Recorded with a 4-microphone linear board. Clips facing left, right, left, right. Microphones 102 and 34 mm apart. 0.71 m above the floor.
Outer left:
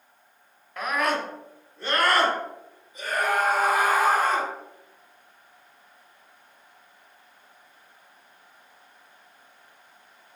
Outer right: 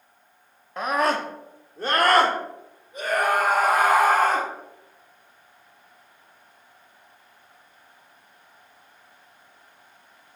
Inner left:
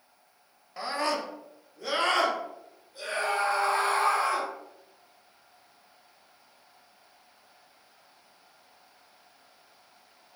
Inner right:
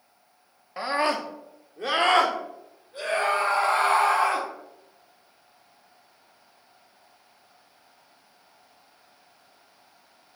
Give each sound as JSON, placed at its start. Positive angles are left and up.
{"t": 0.8, "sound": "a scream", "side_deg": -25, "distance_m": 1.0}